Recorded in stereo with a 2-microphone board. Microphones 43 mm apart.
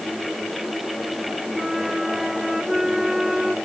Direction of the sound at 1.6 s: 10° right (ahead or behind).